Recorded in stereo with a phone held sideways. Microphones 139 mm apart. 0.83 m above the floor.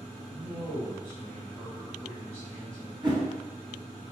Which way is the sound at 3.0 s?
30° right (ahead or behind).